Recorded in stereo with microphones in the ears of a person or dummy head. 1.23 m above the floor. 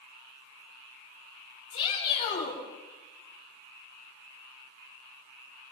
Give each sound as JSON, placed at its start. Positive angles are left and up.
{"t": 1.7, "sound": "a shout", "side_deg": 45, "distance_m": 6.5}